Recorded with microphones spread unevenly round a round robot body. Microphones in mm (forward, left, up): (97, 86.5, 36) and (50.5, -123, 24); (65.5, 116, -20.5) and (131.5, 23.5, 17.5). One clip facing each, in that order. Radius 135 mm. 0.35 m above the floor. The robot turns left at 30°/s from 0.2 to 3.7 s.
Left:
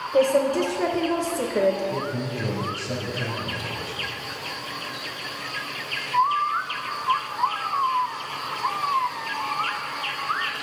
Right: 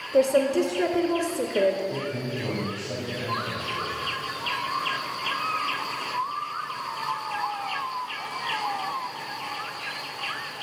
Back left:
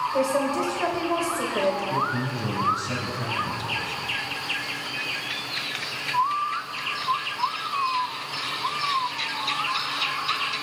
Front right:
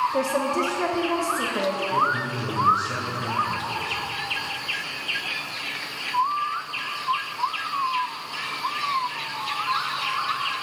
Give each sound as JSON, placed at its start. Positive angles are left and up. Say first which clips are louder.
{"t": 0.1, "sound": "a woman speaking", "louder": "left 1 dB, even", "azimuth_deg": -150, "distance_m": 0.9}
{"t": 1.9, "sound": "a man speaking", "louder": "left 2 dB, front right 2 dB", "azimuth_deg": 165, "distance_m": 2.5}